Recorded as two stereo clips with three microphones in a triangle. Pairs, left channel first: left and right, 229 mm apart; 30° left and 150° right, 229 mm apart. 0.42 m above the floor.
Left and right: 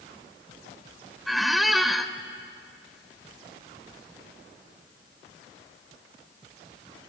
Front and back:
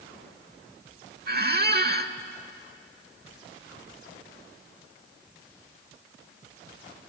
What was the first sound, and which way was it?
A squeak, straight behind.